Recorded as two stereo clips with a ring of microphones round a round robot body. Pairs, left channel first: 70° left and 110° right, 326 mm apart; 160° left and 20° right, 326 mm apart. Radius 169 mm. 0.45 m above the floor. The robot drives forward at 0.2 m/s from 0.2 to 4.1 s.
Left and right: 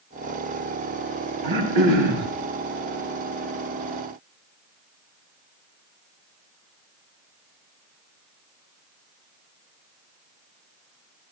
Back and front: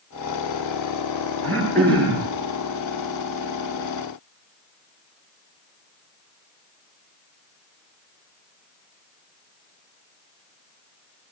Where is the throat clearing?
115° right, 6 m; by 2.3 s 120° right, 6 m.